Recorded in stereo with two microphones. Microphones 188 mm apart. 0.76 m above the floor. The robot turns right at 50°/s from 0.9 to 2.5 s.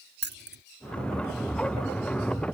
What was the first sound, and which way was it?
Keys jangling, 65° right (ahead or behind).